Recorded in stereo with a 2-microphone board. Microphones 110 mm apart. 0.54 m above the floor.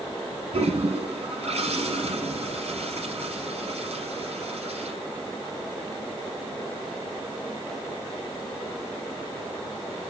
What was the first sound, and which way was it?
A toilet flushing, 65° right (ahead or behind).